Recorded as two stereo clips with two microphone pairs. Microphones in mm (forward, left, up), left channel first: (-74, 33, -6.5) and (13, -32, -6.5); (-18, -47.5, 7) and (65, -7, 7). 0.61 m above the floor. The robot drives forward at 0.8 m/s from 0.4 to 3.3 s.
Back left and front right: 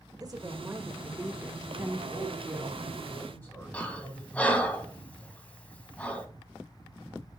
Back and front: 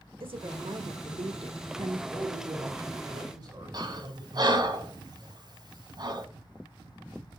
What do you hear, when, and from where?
0.2 s a woman speaking: 20° left, 1.9 m; by 2.0 s 50° left, 0.9 m
2.1 s a man speaking: 60° left, 6 m; by 4.7 s 70° left, 5.5 m
3.7 s breathing: 65° left, 1.8 m